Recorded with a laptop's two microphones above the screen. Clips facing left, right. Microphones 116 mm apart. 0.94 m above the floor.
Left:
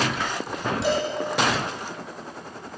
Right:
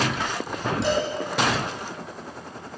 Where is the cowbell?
Centre (ahead or behind), 9 m.